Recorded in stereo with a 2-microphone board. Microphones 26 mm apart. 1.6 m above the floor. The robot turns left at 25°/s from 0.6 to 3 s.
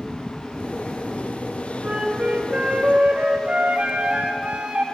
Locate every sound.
1.8 s a flute: 55° right (ahead or behind), 0.5 m; by 4.8 s 60° right (ahead or behind), 0.5 m